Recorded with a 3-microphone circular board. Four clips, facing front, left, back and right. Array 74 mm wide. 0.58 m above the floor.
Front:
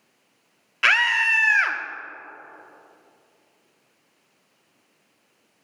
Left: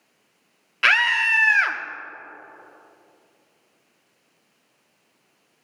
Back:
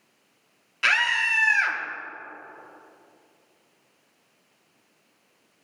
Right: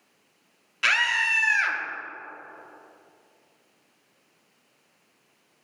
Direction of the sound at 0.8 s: 50° left.